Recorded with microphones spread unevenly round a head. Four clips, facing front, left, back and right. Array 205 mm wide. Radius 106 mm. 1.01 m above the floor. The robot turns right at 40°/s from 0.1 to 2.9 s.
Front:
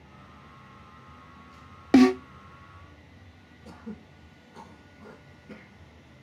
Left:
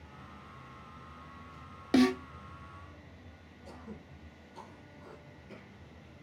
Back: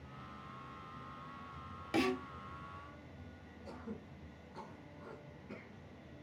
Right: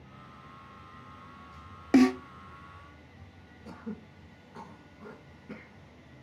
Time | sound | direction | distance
1.9 | a snare drum | 10° right | 0.8 m
3.6 | throat clearing | 70° right | 3.5 m